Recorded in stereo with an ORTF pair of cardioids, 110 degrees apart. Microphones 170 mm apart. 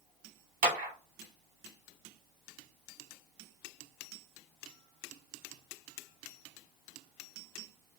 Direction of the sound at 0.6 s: 55° right.